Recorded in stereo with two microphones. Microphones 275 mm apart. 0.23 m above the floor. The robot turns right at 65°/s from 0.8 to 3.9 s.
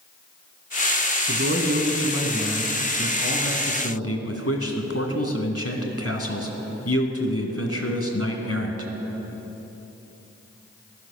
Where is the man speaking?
75° right, 1.9 m; by 8.9 s 100° left, 1.9 m.